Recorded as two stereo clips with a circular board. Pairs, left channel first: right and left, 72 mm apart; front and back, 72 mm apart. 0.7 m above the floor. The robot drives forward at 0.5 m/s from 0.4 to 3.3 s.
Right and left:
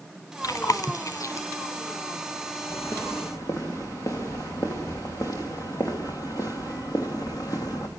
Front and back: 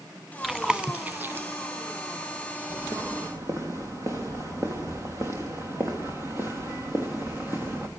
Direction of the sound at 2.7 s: 135° right.